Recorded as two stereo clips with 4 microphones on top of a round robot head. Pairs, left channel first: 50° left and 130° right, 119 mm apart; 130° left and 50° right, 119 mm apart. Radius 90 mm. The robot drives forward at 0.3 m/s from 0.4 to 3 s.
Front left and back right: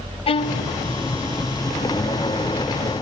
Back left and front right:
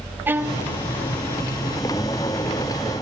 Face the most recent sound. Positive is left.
turn(degrees=60)